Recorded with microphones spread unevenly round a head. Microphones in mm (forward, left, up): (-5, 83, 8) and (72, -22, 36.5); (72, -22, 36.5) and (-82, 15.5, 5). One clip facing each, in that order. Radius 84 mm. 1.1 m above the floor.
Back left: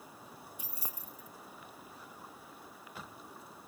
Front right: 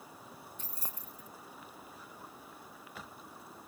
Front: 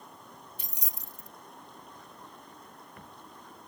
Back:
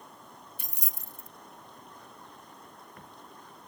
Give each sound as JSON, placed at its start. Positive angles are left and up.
{"t": 0.6, "sound": "keys jangling", "azimuth_deg": -150}